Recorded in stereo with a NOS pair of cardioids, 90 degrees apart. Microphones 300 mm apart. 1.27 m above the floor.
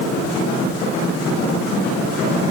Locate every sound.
Only background noise.